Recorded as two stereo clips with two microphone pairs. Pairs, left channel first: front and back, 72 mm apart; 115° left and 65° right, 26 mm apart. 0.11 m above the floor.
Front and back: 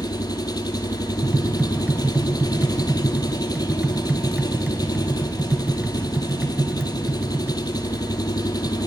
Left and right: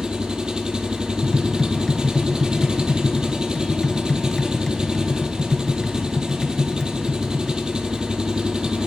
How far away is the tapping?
About 1.0 m.